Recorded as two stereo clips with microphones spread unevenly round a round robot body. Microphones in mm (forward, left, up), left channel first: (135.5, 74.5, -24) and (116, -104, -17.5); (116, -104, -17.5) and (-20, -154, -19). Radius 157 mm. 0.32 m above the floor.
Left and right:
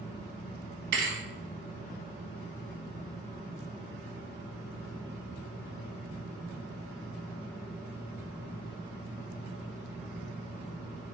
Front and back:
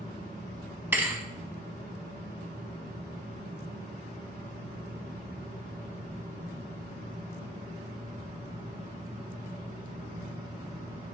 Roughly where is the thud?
Right.